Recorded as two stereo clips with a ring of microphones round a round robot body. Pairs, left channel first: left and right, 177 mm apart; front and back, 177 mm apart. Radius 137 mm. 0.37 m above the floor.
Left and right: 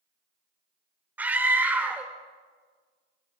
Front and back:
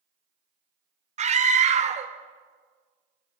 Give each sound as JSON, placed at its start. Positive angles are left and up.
{"t": 1.2, "sound": "a scream", "azimuth_deg": -165, "distance_m": 1.0}